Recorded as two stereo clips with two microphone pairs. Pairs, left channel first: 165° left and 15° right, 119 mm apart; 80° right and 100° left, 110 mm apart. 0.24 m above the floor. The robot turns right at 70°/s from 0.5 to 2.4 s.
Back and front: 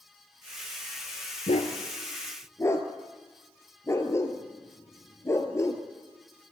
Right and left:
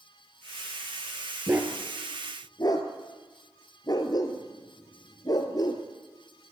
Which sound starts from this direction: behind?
A dog barking, at 1.5 s.